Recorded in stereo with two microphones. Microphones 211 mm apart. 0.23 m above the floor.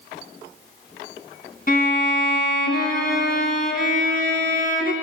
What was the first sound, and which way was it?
A violin, 45° left (ahead or behind).